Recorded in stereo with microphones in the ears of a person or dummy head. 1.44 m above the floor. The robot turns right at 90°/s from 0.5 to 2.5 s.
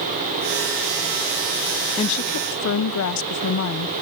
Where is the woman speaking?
30° left, 0.6 m; by 3.9 s 75° left, 0.6 m.